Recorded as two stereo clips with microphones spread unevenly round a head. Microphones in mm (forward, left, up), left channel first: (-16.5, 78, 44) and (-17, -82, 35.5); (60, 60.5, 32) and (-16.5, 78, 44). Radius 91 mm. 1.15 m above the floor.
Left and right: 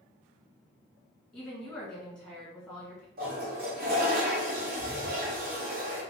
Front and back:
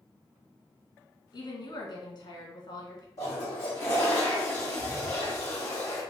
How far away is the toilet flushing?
About 1.4 m.